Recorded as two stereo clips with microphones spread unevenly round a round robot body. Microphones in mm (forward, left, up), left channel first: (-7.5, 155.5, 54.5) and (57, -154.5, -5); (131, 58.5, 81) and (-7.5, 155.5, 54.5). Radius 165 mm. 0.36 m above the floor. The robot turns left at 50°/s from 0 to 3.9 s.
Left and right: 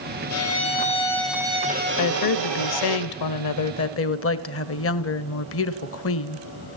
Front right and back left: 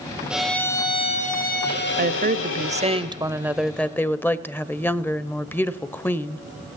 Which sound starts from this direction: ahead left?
A violin, at 0.3 s.